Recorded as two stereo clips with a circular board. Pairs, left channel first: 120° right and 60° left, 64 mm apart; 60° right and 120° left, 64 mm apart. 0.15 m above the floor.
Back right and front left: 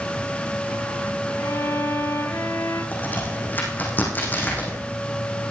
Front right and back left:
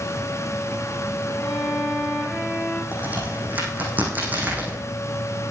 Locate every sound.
1.4 s a violin: 125° right, 7 m
2.9 s a crack: straight behind, 4.5 m